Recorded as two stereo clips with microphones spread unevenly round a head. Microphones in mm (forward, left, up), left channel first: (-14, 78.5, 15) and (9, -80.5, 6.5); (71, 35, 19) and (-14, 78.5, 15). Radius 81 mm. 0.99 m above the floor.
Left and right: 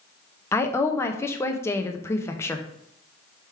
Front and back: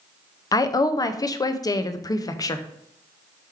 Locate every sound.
0.5 s a woman speaking: 25° left, 0.5 m